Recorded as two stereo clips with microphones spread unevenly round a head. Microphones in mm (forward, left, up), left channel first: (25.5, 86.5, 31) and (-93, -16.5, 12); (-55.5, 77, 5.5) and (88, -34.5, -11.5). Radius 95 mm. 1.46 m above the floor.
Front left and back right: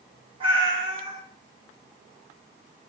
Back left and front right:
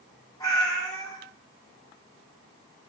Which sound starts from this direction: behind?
A cat meowing, at 0.4 s.